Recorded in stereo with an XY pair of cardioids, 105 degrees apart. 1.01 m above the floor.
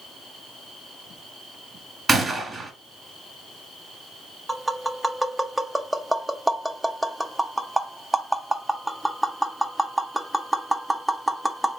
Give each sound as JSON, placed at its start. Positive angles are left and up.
{"t": 2.1, "sound": "a gunshot", "azimuth_deg": -25, "distance_m": 1.9}
{"t": 4.5, "sound": "tapping", "azimuth_deg": -10, "distance_m": 0.7}